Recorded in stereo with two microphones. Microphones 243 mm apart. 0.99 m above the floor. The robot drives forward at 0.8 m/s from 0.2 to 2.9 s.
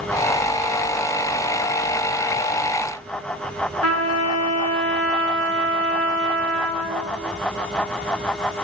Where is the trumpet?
85° left, 6 m.